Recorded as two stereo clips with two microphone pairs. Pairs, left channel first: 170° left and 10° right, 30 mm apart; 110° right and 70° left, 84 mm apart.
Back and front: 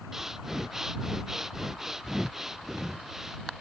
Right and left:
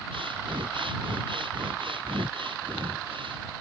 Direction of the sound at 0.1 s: 65° left.